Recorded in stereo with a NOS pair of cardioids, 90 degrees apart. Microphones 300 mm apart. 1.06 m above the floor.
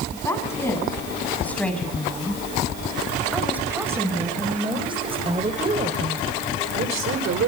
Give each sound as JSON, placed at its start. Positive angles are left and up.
{"t": 0.1, "sound": "a woman speaking", "azimuth_deg": 10, "distance_m": 7.5}